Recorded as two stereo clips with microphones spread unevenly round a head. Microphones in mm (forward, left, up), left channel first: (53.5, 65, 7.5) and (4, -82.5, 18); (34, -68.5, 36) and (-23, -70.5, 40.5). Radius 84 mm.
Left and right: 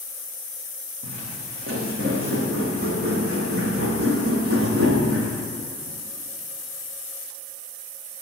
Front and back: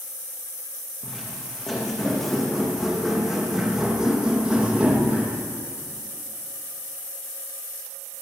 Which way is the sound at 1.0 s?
80° right.